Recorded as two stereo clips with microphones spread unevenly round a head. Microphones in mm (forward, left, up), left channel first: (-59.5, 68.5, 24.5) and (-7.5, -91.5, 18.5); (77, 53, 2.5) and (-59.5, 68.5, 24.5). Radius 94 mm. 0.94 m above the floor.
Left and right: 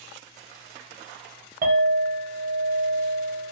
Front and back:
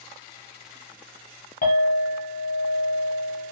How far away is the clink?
About 0.9 m.